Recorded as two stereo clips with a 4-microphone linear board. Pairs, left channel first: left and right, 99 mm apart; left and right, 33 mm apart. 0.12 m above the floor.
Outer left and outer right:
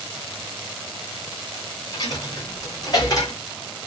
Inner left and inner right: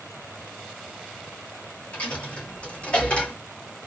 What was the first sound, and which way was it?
A dropped coin, 40° left (ahead or behind).